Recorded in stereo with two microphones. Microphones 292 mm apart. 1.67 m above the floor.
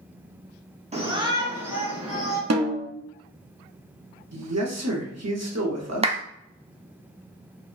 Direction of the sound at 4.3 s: 60° right (ahead or behind).